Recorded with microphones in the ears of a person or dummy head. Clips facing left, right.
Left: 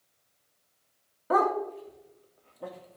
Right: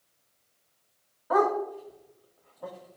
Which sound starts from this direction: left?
A dog barking, at 1.3 s.